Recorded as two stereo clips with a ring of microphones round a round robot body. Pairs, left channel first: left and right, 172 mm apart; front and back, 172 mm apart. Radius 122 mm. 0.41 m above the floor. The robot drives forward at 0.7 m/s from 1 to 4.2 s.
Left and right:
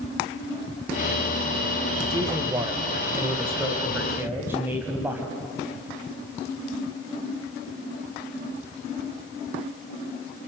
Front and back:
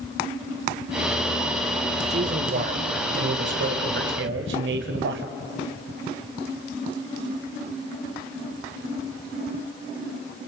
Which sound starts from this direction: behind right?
A man speaking, at 2.1 s.